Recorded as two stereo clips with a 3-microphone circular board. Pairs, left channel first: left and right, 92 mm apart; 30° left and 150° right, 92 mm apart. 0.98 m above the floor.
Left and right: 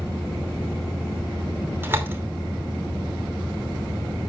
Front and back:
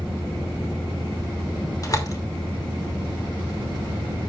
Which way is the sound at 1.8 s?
25° right.